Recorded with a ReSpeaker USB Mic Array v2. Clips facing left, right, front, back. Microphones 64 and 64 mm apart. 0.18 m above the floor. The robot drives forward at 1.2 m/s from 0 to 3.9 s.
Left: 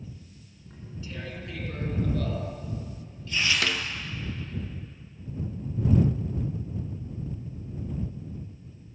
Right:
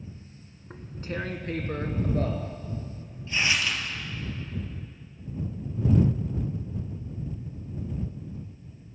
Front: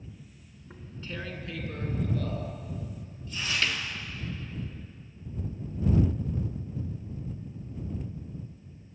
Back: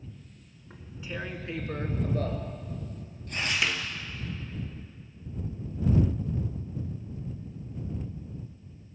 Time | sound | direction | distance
0.7 | tearing paper | 85° right | 1.7 m
3.6 | a snare drum | 105° left | 0.8 m